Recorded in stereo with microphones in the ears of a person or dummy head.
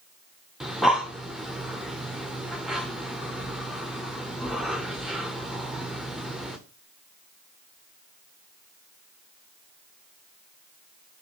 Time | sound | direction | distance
0.6 | breathing | centre (ahead or behind) | 0.6 m